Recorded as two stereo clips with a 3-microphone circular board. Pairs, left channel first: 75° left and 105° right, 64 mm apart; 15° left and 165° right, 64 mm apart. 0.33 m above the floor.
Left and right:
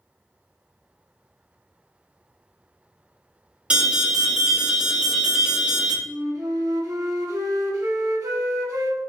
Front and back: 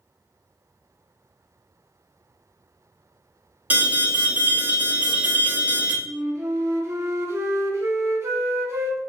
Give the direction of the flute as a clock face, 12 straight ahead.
4 o'clock.